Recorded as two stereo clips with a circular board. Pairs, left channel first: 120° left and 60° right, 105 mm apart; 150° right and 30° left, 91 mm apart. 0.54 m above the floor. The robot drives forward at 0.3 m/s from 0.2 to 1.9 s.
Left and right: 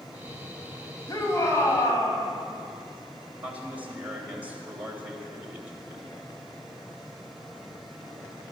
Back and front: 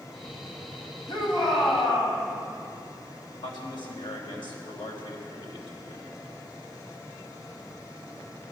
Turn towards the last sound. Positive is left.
turn(degrees=-135)